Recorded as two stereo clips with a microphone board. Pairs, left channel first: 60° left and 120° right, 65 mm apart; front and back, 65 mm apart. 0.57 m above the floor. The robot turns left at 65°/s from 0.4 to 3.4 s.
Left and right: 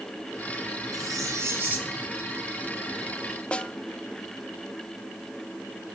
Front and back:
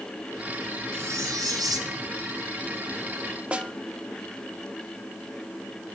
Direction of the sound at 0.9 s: 125° right.